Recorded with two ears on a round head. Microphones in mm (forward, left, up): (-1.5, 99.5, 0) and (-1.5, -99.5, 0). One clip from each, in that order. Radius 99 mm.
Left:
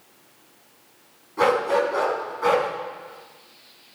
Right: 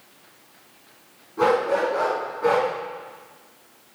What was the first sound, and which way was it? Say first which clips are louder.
A dog barking: even; 60° left (ahead or behind).